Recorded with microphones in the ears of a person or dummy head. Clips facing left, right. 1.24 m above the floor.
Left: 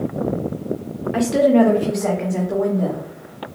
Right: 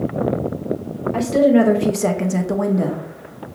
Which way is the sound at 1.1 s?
15° left (ahead or behind).